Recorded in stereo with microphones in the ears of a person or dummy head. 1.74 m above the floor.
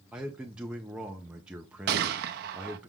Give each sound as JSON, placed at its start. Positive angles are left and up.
{"t": 0.1, "sound": "a man speaking", "side_deg": -5, "distance_m": 0.5}
{"t": 1.9, "sound": "a gunshot", "side_deg": -60, "distance_m": 0.6}